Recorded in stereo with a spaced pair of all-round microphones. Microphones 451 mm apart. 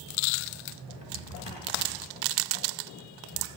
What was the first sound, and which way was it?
A drawer, 65° left (ahead or behind).